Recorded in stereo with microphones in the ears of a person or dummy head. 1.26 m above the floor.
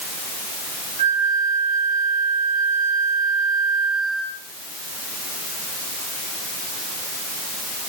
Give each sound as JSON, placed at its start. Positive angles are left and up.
{"t": 1.0, "sound": "a flute", "side_deg": -35, "distance_m": 1.7}